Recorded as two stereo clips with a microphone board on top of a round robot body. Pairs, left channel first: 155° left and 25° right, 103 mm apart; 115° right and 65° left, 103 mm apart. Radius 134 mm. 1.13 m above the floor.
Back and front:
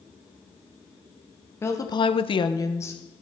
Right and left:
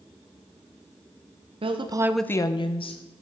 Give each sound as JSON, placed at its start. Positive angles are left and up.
{"t": 1.6, "sound": "a woman speaking", "azimuth_deg": 90, "distance_m": 1.0}